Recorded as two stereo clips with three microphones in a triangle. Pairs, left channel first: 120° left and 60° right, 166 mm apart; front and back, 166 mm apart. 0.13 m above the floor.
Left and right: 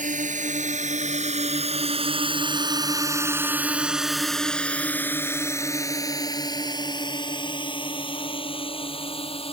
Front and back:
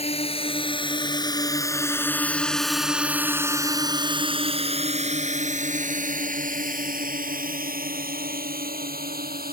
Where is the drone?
40° right; by 9.5 s 170° left.